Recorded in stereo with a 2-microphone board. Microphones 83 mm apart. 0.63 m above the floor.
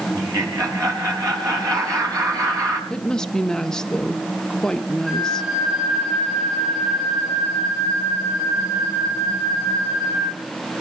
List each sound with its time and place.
0.1 s laughter: 40° right (ahead or behind), 5 m
2.9 s a woman speaking: 10° left (ahead or behind), 1.2 m
5.1 s a flute: 5° right (ahead or behind), 10 m